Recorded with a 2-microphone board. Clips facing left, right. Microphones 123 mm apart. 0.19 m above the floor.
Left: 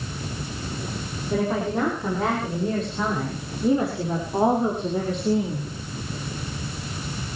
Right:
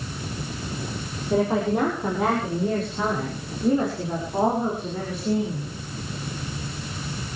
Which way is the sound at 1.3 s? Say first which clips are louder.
Right 2 dB; 20° right (ahead or behind).